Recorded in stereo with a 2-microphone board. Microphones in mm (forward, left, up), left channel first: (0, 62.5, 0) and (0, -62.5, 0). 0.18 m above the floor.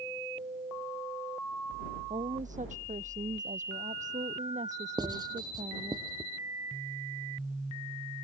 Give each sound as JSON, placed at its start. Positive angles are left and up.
{"t": 2.1, "sound": "a woman speaking", "side_deg": -80}
{"t": 5.0, "sound": "writing", "side_deg": -30}